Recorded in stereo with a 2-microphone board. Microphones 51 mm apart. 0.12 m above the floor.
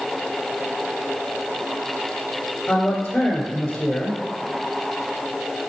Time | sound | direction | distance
2.7 | a man speaking | 20° left (ahead or behind) | 1.7 m